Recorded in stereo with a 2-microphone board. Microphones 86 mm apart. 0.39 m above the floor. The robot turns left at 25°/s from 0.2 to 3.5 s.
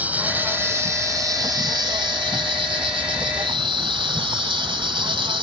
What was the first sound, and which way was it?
An insect, 20° right.